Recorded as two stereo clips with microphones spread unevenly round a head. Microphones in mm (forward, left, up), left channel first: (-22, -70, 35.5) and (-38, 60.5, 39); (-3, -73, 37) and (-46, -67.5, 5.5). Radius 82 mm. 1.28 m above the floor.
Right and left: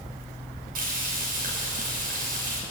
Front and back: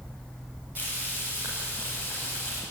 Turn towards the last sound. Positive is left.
turn(degrees=110)